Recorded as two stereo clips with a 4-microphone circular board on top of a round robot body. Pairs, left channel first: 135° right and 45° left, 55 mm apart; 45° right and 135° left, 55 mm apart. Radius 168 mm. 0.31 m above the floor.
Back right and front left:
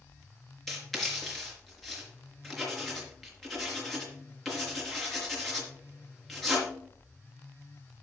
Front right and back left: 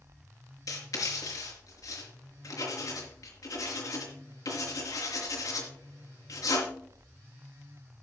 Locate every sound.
0.7 s writing: 50° right, 4 m